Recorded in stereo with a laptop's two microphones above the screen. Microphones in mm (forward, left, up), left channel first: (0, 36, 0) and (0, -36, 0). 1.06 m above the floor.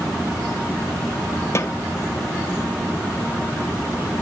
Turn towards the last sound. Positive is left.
turn(degrees=40)  # may be behind; listen again after turning